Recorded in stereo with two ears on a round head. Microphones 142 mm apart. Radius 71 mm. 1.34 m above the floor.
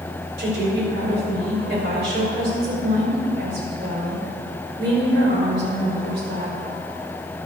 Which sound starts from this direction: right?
A woman speaking, at 0.4 s.